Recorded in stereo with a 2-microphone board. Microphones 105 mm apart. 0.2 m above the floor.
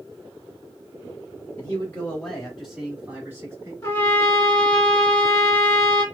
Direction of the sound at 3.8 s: 25° left (ahead or behind).